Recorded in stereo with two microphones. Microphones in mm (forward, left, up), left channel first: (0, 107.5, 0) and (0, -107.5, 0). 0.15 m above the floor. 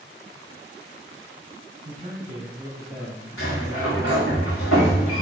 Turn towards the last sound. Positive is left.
turn(degrees=85)